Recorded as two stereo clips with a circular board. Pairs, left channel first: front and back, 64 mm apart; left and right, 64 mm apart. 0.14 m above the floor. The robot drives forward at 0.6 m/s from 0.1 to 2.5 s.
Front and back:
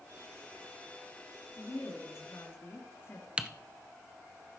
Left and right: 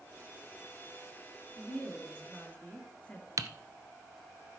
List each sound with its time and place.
1.6 s a woman speaking: 20° left, 2.5 m; by 3.3 s 25° left, 2 m
3.4 s typing on a keyboard: 110° right, 0.6 m